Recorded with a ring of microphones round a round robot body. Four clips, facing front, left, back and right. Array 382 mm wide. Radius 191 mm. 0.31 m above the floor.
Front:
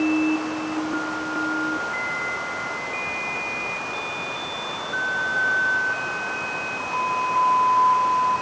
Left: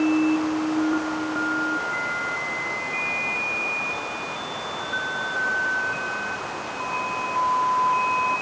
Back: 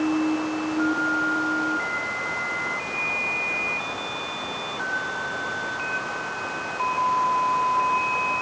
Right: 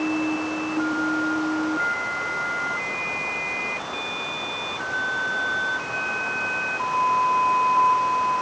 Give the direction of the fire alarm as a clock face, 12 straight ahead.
No fire alarm in this recording.